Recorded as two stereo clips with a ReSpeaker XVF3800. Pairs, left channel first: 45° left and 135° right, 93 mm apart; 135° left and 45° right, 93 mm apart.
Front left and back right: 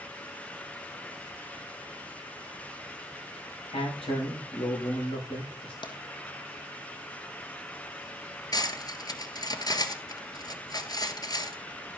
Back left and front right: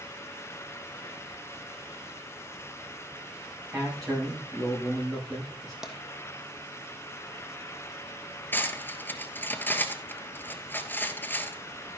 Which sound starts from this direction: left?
Cutlery clinking, at 8.5 s.